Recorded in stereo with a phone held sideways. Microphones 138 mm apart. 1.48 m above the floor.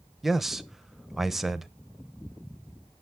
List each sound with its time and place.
0.2 s a man speaking: centre (ahead or behind), 0.8 m